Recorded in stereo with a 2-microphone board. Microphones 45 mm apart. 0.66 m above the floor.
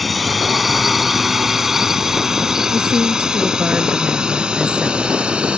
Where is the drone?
Centre (ahead or behind); by 5.6 s 20° right (ahead or behind).